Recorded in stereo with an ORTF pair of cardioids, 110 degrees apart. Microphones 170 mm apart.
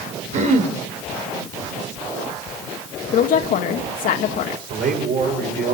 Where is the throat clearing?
50° right, 3.5 m.